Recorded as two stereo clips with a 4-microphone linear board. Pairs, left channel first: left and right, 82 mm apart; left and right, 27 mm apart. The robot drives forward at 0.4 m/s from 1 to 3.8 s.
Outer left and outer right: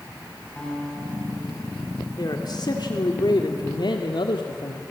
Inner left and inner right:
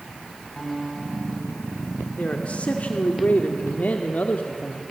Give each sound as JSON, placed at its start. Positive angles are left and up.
{"t": 0.6, "sound": "a guitar", "side_deg": 10, "distance_m": 8.0}
{"t": 2.2, "sound": "a man speaking", "side_deg": 55, "distance_m": 2.0}